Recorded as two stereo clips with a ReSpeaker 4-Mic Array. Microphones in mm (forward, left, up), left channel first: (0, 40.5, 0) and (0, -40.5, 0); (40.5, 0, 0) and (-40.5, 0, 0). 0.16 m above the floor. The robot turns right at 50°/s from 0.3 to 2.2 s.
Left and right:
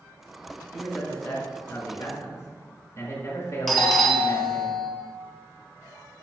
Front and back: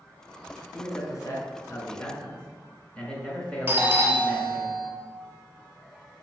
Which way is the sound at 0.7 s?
5° right.